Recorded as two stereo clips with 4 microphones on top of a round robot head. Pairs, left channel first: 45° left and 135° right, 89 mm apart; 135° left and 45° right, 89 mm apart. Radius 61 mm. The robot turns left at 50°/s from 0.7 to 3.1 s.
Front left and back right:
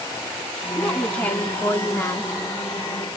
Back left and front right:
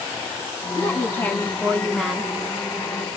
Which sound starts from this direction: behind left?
A woman speaking, at 0.8 s.